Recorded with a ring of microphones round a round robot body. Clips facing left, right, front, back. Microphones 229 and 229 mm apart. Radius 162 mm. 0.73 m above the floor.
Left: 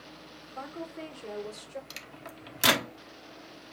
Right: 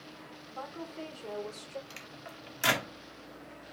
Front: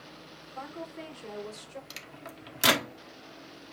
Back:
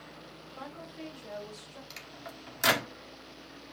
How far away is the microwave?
About 1.2 m.